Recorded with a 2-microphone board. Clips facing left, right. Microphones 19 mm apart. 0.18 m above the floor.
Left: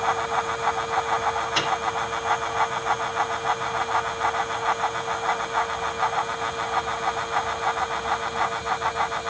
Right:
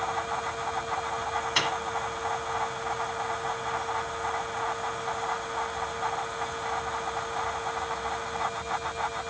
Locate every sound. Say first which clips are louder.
1.6 s a microwave: even; 15° right (ahead or behind), 1.5 m